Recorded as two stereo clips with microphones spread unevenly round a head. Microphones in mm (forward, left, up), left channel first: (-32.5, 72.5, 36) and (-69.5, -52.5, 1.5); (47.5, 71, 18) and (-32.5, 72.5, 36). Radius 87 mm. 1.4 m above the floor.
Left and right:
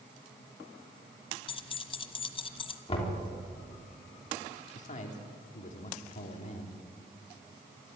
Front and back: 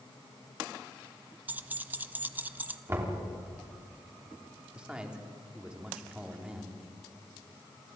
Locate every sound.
1.5 s keys jangling: 115° left, 1.2 m
2.9 s knocking: 120° left, 4 m
4.7 s a man speaking: 100° left, 3.5 m